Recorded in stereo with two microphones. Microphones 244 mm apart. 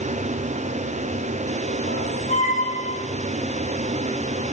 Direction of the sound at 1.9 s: 60° right (ahead or behind).